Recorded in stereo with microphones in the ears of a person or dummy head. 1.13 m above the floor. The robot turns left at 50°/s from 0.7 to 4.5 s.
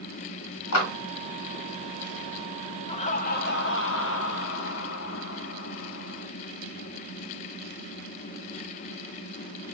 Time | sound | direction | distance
0.7 | a clap | 70° left (ahead or behind) | 1.7 m
2.9 | laughter | 150° left | 0.6 m